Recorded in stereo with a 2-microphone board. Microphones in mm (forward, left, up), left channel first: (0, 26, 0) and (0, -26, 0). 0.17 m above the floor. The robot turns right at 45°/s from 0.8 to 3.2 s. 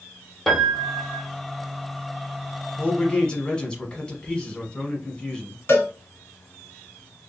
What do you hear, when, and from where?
0.5 s a piano: centre (ahead or behind), 1.2 m; by 1.3 s 20° right (ahead or behind), 1.2 m
2.8 s a man speaking: 25° left (ahead or behind), 1.1 m; by 5.6 s 20° left (ahead or behind), 1.1 m
5.7 s a cowbell: 50° left (ahead or behind), 1.3 m